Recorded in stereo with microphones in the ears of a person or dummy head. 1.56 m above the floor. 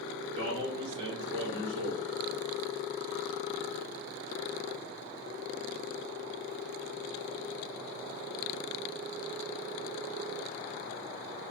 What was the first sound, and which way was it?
A man speaking, 70° right (ahead or behind).